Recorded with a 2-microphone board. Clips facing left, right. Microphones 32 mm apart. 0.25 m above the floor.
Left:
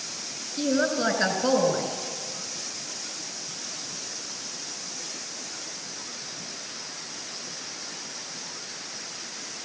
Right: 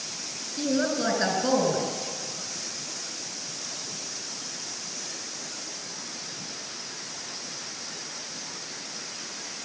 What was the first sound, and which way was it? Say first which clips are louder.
A woman speaking: left 2 dB; 25° left (ahead or behind).